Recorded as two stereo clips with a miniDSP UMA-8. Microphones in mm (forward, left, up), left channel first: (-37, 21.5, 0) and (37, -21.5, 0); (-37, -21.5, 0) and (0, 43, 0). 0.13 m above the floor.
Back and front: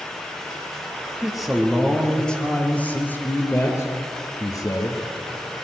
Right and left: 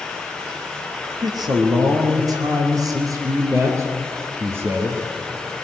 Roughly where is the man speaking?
Ahead left.